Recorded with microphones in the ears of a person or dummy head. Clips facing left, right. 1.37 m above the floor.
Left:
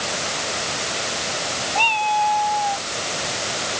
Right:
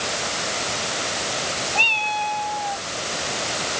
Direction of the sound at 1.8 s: 30° right (ahead or behind).